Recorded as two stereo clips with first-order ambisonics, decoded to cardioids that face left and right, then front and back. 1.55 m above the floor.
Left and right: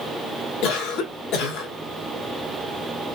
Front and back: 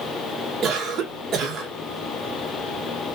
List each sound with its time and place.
0.6 s a cough: 120° left, 1.9 m